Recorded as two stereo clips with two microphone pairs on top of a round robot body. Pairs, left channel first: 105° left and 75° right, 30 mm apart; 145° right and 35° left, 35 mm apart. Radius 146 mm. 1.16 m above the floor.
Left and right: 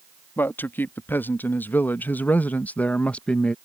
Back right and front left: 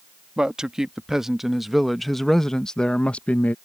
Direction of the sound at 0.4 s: 110° left.